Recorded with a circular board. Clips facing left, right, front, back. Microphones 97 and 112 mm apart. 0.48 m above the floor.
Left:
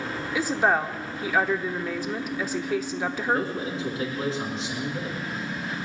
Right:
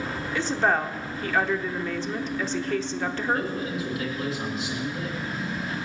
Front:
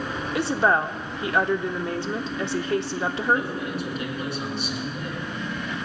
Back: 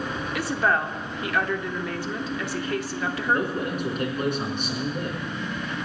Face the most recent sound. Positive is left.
turn(degrees=145)